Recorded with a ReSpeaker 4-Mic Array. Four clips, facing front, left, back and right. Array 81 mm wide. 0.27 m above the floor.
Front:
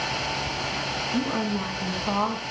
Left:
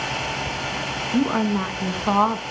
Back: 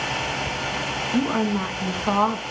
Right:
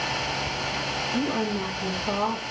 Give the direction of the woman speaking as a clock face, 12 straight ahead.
8 o'clock.